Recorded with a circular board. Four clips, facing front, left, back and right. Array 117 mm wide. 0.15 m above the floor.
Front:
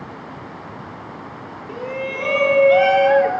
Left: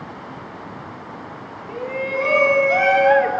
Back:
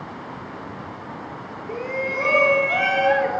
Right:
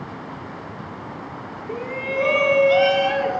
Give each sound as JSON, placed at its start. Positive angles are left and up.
{"t": 1.7, "sound": "a shout", "azimuth_deg": -155, "distance_m": 1.1}